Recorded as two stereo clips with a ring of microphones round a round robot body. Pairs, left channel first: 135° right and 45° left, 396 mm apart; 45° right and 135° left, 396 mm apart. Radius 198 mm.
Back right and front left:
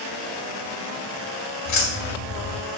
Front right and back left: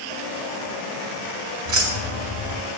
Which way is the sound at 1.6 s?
Straight behind.